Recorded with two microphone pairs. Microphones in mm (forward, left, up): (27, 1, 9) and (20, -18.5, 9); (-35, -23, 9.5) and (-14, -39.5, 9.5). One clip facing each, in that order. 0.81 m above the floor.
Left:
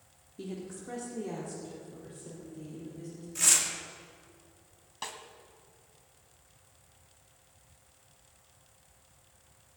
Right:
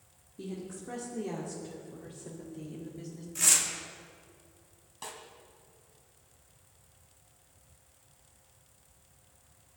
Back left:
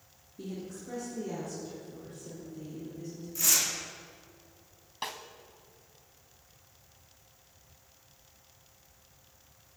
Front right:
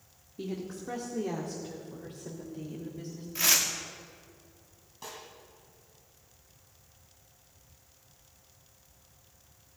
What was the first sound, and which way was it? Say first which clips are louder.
A woman speaking: even, front right 3 dB; 5° left.